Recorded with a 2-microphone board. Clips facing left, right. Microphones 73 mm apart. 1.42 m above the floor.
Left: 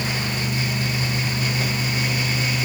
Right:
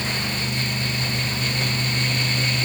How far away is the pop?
No pop in this recording.